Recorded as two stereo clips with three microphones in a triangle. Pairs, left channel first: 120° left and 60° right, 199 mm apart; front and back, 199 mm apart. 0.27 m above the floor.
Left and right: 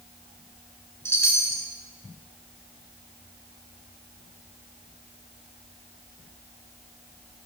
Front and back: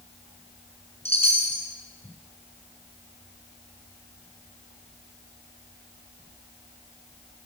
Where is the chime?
60° right, 1.1 m.